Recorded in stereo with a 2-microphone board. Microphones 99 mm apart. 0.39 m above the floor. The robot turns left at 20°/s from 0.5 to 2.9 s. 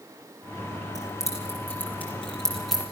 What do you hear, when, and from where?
0.9 s keys jangling: 35° left (ahead or behind), 6 m; by 2.8 s centre (ahead or behind), 6 m